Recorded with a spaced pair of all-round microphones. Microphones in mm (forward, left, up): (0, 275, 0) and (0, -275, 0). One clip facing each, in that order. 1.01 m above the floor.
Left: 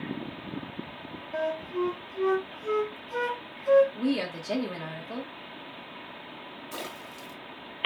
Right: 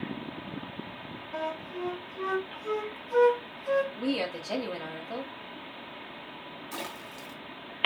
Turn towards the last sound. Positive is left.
turn(degrees=-15)  # may be behind; listen again after turning